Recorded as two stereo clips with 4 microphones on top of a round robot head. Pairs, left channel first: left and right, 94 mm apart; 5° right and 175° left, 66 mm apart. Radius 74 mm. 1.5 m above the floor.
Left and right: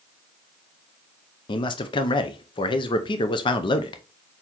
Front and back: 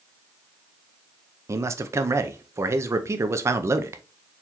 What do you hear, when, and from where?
1.5 s a man speaking: 130° left, 0.6 m